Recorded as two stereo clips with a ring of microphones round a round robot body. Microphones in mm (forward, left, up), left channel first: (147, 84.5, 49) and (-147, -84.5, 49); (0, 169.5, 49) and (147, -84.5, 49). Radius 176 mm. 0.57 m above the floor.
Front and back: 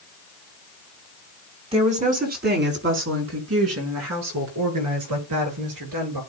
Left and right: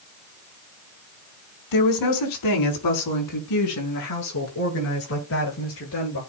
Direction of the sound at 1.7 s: 135° left.